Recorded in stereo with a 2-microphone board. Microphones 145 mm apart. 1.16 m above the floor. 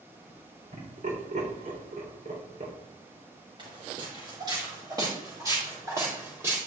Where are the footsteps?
35° right (ahead or behind), 6 m; by 6.6 s 15° right (ahead or behind), 5.5 m.